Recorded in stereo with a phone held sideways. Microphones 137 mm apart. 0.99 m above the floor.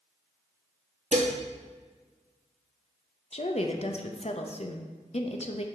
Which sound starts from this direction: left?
A woman speaking, at 3.3 s.